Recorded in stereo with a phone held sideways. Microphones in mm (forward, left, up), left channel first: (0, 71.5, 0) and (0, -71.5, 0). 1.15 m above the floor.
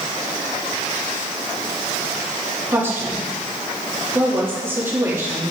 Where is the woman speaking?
15° right (ahead or behind), 2.5 m.